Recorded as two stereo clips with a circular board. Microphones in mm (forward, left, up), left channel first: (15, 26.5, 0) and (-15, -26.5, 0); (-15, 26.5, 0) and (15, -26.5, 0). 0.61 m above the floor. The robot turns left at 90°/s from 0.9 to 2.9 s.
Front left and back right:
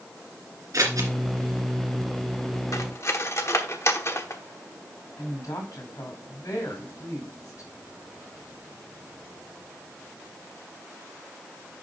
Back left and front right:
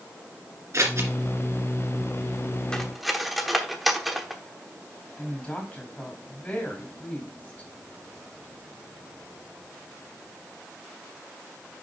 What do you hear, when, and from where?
0.7 s scissors: 95° right, 2 m; by 1.1 s 115° right, 2 m
2.7 s cutlery clinking: 45° left, 0.9 m; by 4.4 s 25° left, 0.9 m
5.2 s a woman speaking: 50° left, 4 m